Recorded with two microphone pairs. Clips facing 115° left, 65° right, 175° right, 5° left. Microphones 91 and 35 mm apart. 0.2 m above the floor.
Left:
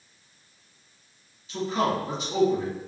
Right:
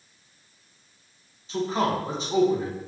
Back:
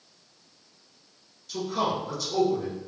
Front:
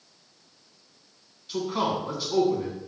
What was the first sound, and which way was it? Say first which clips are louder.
A man speaking: right 1 dB, front 1 dB; 40° right.